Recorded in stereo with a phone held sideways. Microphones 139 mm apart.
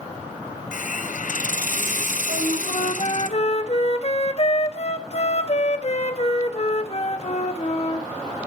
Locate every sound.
0.7 s a hiss: 65° left (ahead or behind), 0.6 m
2.3 s a flute: 50° left (ahead or behind), 1.0 m